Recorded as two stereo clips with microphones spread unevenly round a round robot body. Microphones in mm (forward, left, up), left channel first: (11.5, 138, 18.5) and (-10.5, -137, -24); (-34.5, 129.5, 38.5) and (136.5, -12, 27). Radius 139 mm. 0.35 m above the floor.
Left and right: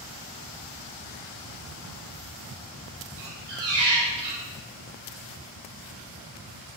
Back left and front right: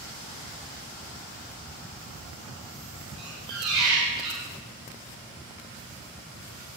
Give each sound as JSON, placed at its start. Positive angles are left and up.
{"t": 3.2, "sound": "a squeak", "azimuth_deg": -70, "distance_m": 3.5}